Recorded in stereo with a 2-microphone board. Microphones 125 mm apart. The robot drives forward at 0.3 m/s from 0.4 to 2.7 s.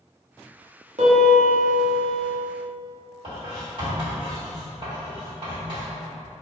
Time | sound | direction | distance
1.0 | a piano | 65° right (ahead or behind) | 1.0 m
3.2 | writing | 40° right (ahead or behind) | 1.8 m